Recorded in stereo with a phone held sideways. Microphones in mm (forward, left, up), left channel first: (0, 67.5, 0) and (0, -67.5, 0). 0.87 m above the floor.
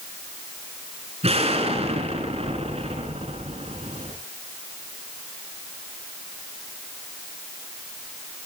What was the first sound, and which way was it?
An explosion, 50° right (ahead or behind).